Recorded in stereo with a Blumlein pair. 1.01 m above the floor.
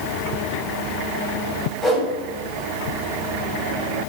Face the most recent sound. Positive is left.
turn(degrees=10)